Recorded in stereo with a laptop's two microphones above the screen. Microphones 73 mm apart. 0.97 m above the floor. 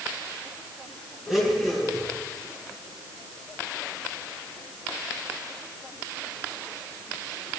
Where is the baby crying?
I don't hear a baby crying.